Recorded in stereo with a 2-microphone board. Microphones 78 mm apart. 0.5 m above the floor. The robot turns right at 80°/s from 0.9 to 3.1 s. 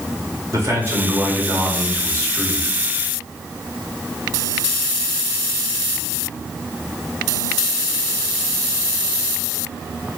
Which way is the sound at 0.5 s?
65° right.